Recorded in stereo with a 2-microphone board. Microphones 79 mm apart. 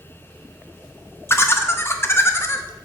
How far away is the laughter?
About 0.5 m.